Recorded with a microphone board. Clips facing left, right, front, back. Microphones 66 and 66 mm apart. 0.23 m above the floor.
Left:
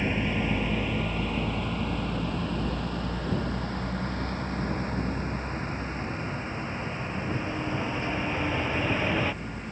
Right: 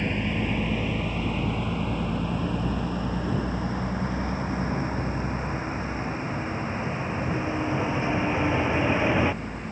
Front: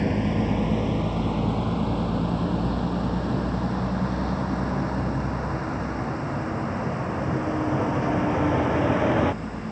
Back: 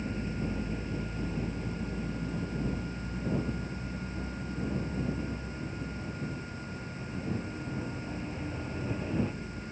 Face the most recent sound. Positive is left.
turn(degrees=-15)